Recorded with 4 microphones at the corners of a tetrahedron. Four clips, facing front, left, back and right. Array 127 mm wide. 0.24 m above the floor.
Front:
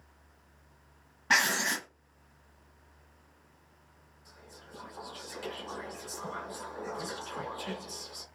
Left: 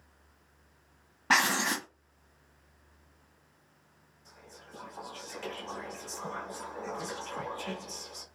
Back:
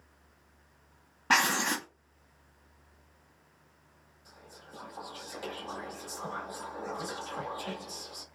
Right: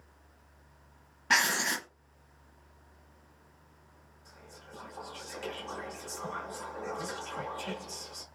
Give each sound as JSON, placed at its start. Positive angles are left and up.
{"t": 1.3, "sound": "writing", "azimuth_deg": 130, "distance_m": 0.7}
{"t": 4.2, "sound": "whispering", "azimuth_deg": -175, "distance_m": 1.0}